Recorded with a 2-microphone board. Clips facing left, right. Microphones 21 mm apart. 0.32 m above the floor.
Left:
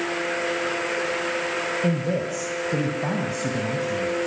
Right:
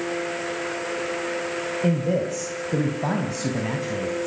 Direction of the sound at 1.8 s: 5° right (ahead or behind).